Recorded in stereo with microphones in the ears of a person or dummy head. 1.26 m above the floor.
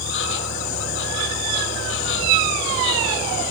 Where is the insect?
65° left (ahead or behind).